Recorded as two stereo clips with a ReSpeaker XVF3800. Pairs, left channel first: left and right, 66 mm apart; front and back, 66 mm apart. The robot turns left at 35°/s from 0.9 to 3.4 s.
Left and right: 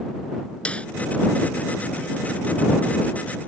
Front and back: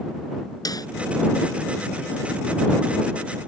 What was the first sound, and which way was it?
A snare drum, 20° left.